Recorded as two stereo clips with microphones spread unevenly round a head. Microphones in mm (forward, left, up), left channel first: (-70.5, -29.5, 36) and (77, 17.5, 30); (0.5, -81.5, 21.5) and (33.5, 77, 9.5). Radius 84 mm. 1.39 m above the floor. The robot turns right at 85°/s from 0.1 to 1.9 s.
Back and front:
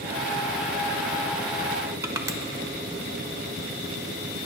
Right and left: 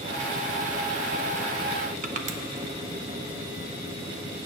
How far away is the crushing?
About 0.6 m.